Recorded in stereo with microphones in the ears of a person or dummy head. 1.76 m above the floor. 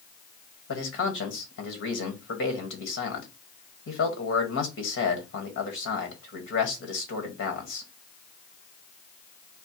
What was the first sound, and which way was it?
A man speaking, 75° left (ahead or behind).